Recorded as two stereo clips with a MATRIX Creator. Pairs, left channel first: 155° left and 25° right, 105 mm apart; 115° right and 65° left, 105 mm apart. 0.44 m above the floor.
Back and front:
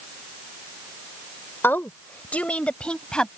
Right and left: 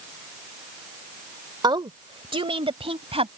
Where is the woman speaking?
95° left; by 3.3 s 75° left.